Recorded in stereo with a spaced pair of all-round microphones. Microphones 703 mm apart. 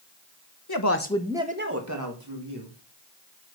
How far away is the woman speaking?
About 1.1 m.